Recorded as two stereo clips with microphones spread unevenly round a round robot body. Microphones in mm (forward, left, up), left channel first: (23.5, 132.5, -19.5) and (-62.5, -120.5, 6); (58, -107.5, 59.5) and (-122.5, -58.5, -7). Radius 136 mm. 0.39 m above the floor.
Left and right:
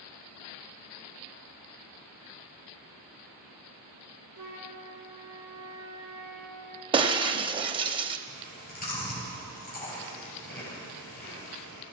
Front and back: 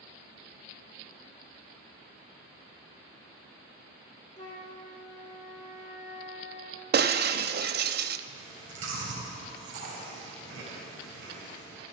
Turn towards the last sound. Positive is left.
turn(degrees=130)